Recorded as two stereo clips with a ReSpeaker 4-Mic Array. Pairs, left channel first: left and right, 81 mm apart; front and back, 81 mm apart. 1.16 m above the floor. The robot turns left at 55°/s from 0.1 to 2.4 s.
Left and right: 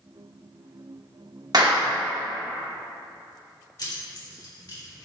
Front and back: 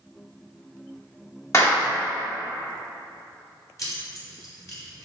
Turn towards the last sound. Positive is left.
turn(degrees=45)